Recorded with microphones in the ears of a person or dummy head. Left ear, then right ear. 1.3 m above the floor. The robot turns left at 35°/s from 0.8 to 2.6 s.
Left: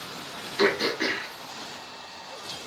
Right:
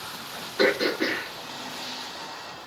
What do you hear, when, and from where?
0.6 s throat clearing: 45° left (ahead or behind), 6 m; by 1.3 s 30° left (ahead or behind), 6 m